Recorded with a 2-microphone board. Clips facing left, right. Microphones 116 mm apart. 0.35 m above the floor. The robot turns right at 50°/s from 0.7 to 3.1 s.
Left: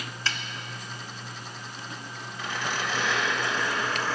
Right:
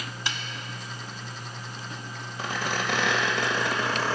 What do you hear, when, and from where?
0.3 s a snare drum: 15° right (ahead or behind), 0.5 m
2.4 s a squeak: 145° right, 1.6 m; by 4.2 s 110° right, 1.6 m